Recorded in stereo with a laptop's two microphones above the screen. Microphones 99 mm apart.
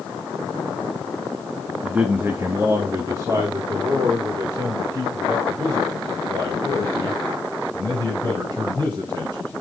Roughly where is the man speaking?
Centre.